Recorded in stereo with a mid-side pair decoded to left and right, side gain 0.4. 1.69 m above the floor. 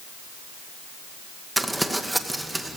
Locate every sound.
1.6 s crumpling: 10° right, 2 m